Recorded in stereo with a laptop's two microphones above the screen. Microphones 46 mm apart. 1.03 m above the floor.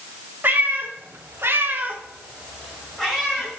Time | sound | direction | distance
0.4 | a cat meowing | 45° right (ahead or behind) | 1.7 m